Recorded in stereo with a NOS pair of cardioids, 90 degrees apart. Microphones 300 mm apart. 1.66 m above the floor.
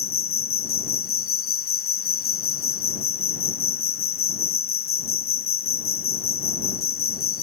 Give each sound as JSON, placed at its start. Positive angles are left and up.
{"t": 0.0, "sound": "an insect", "azimuth_deg": 50}